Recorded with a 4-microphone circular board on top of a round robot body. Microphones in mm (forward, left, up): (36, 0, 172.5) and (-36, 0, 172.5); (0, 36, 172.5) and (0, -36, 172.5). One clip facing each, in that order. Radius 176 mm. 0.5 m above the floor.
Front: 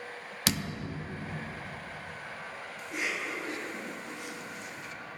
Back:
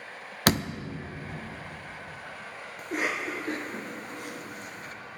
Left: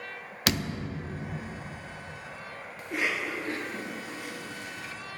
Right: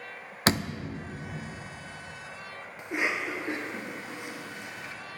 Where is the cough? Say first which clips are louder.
Back 5 dB, right 1 dB; 155° right, 1.5 m.